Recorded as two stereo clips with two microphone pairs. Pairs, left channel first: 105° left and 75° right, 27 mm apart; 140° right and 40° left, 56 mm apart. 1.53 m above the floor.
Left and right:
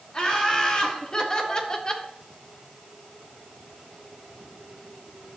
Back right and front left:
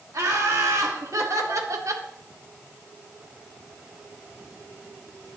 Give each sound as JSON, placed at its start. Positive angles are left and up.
{"t": 0.1, "sound": "laughter", "azimuth_deg": 50, "distance_m": 2.5}